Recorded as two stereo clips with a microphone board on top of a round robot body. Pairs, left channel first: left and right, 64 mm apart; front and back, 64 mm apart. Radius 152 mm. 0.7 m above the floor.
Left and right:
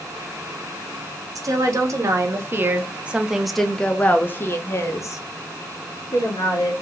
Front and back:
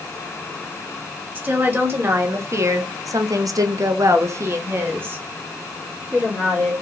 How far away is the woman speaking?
About 1.5 m.